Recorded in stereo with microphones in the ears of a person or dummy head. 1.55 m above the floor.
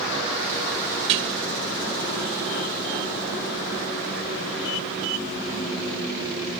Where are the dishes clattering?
40° right (ahead or behind).